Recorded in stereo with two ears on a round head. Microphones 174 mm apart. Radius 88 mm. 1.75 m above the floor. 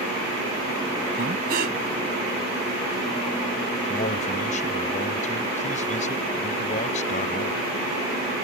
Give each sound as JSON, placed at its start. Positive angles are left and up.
{"t": 1.2, "sound": "breathing", "side_deg": -50}
{"t": 3.9, "sound": "a man speaking", "side_deg": 35}